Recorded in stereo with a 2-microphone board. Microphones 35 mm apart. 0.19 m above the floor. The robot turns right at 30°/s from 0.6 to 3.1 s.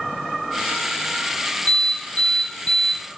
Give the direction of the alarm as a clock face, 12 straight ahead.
10 o'clock.